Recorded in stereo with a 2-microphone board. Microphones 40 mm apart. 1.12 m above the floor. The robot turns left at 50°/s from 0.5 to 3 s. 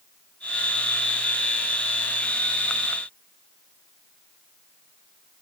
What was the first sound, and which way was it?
Only background noise.